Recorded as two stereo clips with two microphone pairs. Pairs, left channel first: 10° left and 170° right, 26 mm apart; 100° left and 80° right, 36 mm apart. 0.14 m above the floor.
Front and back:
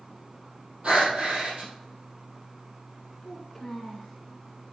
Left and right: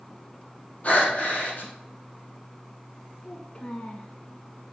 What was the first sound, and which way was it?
Breathing, 150° left.